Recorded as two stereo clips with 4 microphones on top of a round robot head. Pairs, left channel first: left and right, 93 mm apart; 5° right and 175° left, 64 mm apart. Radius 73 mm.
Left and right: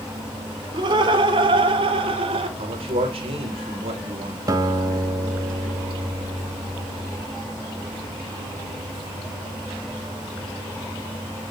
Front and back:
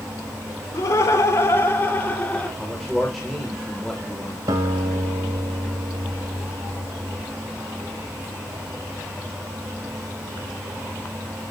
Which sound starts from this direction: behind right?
A guitar, at 4.5 s.